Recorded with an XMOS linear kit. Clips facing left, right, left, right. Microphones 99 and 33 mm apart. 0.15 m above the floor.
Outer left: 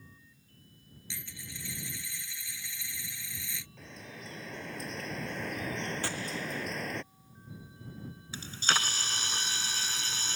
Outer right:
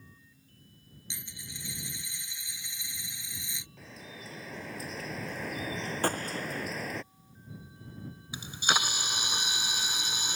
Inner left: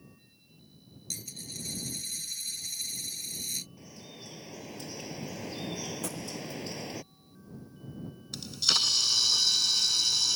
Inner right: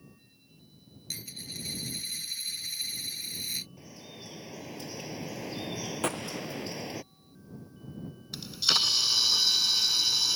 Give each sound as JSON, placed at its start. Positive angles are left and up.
{"t": 1.1, "sound": "a dropped coin", "side_deg": -20}
{"t": 3.8, "sound": "dripping", "side_deg": 0}
{"t": 6.0, "sound": "a gunshot", "side_deg": -45}
{"t": 8.3, "sound": "a camera shutter", "side_deg": -15}